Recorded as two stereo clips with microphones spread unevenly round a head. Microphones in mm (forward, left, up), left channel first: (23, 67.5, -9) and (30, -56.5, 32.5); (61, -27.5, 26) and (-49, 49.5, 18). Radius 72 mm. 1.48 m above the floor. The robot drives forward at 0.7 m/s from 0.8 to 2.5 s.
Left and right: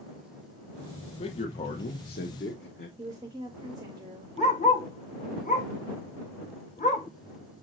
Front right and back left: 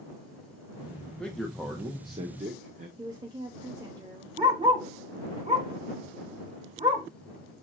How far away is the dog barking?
About 1.1 m.